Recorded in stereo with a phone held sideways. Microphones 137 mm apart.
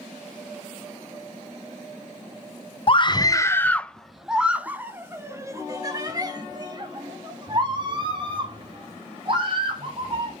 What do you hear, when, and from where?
2.9 s a scream: 40° left (ahead or behind), 0.9 m; by 10.4 s 40° right (ahead or behind), 4.5 m